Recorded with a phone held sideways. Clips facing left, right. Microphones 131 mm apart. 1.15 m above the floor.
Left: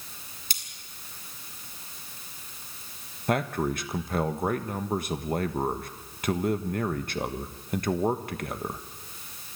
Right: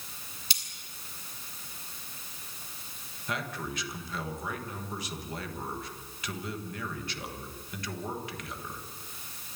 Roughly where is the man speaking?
Left.